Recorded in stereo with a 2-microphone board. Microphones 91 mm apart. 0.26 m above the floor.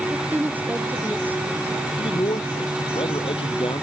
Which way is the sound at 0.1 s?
20° right (ahead or behind).